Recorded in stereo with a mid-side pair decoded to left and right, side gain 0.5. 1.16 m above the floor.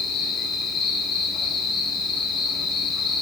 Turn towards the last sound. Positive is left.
turn(degrees=60)